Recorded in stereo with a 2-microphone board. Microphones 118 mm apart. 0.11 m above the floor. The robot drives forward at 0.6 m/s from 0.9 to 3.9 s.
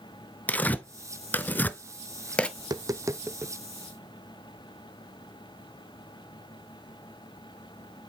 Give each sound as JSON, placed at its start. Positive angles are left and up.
{"t": 0.5, "sound": "tearing paper", "side_deg": 15, "distance_m": 0.6}
{"t": 2.6, "sound": "tapping", "side_deg": -35, "distance_m": 0.5}